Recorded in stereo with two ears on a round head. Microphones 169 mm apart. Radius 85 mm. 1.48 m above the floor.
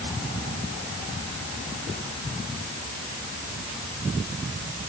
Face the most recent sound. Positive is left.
No sound to turn to.